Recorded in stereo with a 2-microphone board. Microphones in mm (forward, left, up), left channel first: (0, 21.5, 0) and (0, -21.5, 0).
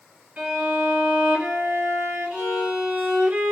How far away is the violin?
About 1.4 m.